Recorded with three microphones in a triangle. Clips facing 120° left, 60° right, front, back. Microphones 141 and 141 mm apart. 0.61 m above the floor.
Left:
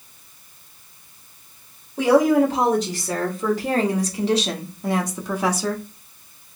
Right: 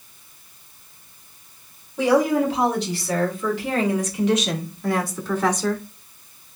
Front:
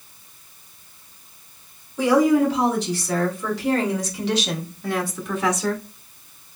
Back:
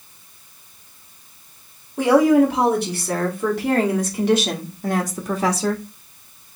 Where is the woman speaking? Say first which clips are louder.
Left 3 dB, back 3 dB; 155° left, 2.5 m; by 5.8 s 150° right, 0.9 m.